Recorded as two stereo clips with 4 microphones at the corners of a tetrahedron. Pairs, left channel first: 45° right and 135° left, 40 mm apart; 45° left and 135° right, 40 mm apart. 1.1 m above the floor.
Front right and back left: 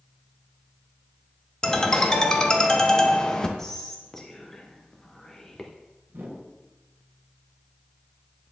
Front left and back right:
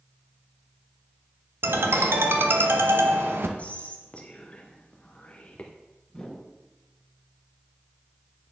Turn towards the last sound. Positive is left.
turn(degrees=110)